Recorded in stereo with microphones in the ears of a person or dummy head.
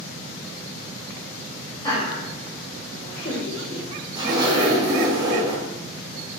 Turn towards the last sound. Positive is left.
turn(degrees=-30)  # may be behind; listen again after turning